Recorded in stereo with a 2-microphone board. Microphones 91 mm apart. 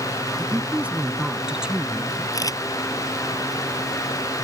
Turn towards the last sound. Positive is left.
turn(degrees=40)  # may be behind; listen again after turning